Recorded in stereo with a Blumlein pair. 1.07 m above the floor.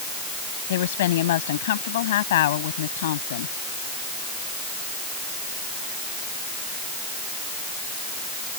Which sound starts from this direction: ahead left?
A woman speaking, at 0.7 s.